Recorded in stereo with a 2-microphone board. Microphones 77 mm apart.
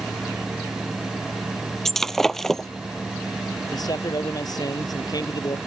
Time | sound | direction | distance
1.9 | breaking glass | 5° left (ahead or behind) | ?
3.7 | a man speaking | 55° left (ahead or behind) | ?